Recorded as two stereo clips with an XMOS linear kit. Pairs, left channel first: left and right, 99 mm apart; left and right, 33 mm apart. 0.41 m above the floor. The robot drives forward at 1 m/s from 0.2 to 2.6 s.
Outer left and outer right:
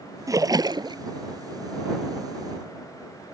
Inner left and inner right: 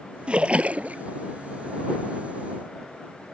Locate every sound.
0.3 s a splash: 35° right (ahead or behind); by 1.0 s 50° right (ahead or behind)